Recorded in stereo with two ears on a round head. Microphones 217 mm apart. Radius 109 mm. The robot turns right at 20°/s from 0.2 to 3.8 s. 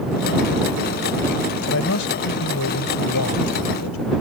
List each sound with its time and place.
1.7 s a man speaking: 50° left; by 4.1 s 95° left